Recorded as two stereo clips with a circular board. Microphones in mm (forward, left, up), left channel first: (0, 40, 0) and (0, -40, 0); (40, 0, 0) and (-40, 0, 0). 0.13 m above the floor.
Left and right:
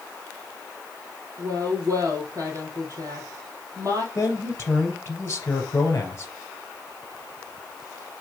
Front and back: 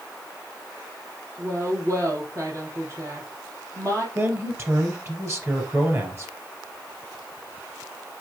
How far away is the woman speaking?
About 3.5 m.